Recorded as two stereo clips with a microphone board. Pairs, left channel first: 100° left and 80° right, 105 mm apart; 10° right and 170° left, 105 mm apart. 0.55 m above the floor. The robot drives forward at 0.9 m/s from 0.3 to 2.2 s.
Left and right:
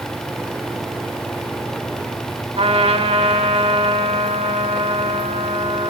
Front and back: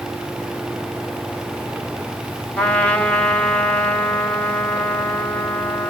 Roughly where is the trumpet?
Right.